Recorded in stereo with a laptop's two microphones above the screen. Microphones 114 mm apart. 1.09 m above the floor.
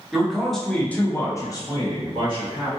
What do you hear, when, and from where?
0.1 s a man speaking: 5° right (ahead or behind), 1.1 m; by 2.7 s 30° left (ahead or behind), 1.3 m